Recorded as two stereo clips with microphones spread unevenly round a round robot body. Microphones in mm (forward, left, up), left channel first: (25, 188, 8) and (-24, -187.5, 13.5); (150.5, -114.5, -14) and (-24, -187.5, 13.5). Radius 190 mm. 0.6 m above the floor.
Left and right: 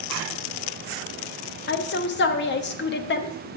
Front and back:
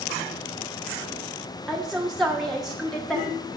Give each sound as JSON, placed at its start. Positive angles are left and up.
{"t": 1.7, "sound": "a woman speaking", "azimuth_deg": 95, "distance_m": 0.6}